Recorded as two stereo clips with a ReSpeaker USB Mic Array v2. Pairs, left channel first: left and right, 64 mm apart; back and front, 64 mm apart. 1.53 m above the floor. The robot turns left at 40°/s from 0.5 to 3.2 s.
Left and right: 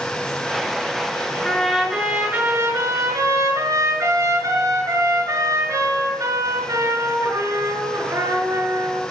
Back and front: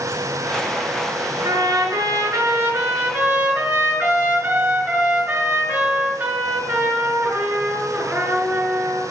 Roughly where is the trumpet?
Ahead.